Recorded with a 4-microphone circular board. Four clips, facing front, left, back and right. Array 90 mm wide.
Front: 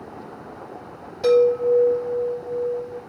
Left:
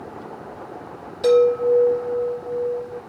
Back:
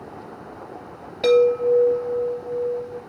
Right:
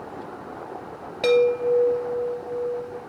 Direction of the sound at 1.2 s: 120° right.